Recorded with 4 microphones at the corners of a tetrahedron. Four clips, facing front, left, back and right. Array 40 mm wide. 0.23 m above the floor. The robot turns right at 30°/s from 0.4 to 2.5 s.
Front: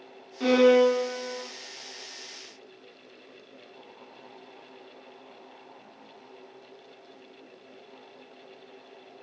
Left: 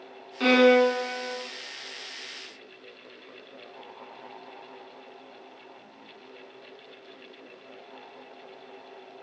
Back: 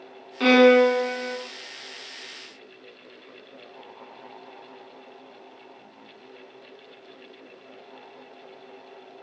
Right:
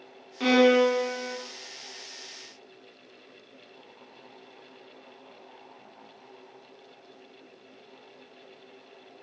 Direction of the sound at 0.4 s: 160° left.